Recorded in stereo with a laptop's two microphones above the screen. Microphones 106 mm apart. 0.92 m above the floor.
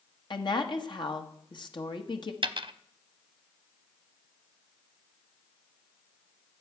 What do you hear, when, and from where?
0.3 s a woman speaking: 50° left (ahead or behind), 1.2 m
2.4 s a dropped coin: 55° right (ahead or behind), 0.7 m